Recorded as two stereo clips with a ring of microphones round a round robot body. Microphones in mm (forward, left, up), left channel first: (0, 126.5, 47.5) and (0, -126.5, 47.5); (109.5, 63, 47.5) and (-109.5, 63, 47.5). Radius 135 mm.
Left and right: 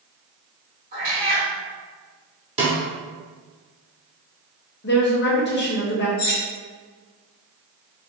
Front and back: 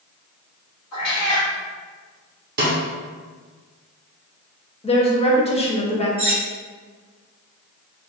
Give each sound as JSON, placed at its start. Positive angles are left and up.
{"t": 0.9, "sound": "a cat meowing", "azimuth_deg": -30, "distance_m": 1.2}
{"t": 2.6, "sound": "a snare drum", "azimuth_deg": -150, "distance_m": 0.6}
{"t": 4.8, "sound": "a woman speaking", "azimuth_deg": 55, "distance_m": 0.9}
{"t": 6.2, "sound": "cutlery clinking", "azimuth_deg": 115, "distance_m": 1.0}